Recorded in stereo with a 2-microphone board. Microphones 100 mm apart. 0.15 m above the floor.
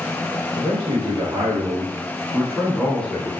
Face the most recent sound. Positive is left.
turn(degrees=20)  # may be behind; listen again after turning